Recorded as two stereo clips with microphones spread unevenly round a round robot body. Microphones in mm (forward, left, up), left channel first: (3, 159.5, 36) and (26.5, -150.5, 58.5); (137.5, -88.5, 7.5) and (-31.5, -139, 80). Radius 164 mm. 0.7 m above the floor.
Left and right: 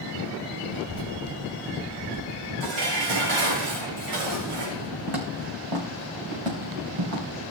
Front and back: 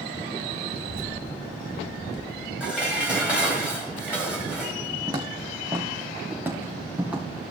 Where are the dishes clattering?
75° right, 3.5 m.